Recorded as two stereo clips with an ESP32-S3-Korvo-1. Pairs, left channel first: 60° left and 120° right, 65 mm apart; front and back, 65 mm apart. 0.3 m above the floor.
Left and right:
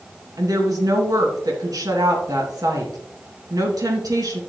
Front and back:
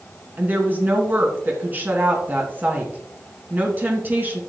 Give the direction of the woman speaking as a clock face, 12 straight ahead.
4 o'clock.